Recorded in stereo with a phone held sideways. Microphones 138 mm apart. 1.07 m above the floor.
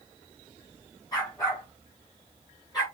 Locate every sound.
1.1 s a dog barking: 25° left (ahead or behind), 7.5 m; by 2.9 s 30° left (ahead or behind), 8.5 m